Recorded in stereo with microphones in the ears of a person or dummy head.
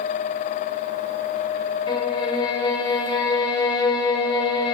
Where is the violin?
30° left (ahead or behind), 7 m.